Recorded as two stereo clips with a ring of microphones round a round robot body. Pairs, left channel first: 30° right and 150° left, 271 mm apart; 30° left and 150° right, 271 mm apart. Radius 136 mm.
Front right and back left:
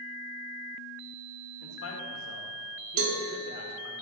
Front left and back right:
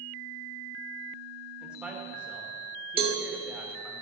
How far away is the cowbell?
About 1.6 m.